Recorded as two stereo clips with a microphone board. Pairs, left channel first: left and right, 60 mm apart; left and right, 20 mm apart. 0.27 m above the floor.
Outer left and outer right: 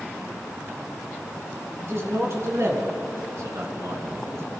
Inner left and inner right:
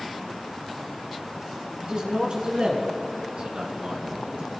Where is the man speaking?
45° right (ahead or behind), 4.5 m; by 4.5 s 55° right (ahead or behind), 2.5 m.